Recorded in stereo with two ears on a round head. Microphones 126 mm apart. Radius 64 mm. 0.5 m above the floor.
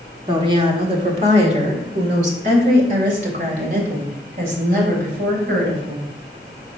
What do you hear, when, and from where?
0.3 s a woman speaking: 30° right (ahead or behind), 1.4 m; by 6.1 s 70° right (ahead or behind), 4 m